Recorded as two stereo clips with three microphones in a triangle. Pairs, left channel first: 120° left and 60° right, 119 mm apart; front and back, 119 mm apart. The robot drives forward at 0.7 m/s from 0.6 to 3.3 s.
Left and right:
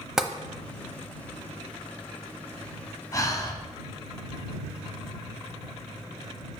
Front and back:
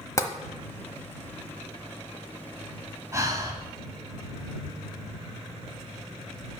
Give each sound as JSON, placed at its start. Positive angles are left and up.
{"t": 0.2, "sound": "tapping", "azimuth_deg": 20, "distance_m": 0.7}
{"t": 3.1, "sound": "breathing", "azimuth_deg": 145, "distance_m": 1.1}